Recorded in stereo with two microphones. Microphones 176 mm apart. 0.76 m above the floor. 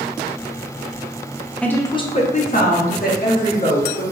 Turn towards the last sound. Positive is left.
turn(degrees=70)  # may be behind; listen again after turning